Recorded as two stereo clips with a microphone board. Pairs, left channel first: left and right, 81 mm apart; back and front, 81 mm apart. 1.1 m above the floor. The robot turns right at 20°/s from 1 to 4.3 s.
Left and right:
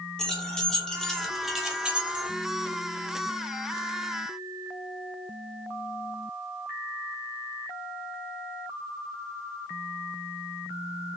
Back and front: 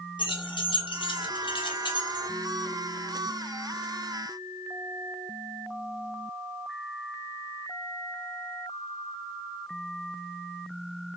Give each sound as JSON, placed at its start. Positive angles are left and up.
{"t": 0.2, "sound": "keys jangling", "azimuth_deg": 170, "distance_m": 0.9}